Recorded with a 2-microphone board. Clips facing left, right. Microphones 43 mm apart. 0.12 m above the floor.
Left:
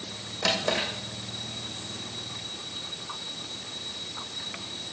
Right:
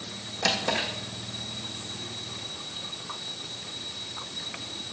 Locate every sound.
0.4 s a drawer: 5° left (ahead or behind), 2.5 m